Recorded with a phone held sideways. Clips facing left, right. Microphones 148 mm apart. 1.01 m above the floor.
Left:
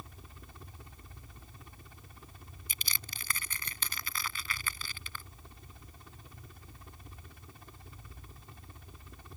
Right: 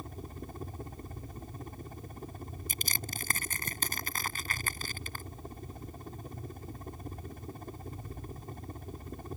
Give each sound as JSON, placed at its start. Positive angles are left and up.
{"t": 0.0, "sound": "a helicopter", "side_deg": -45}
{"t": 2.7, "sound": "crushing", "side_deg": -45}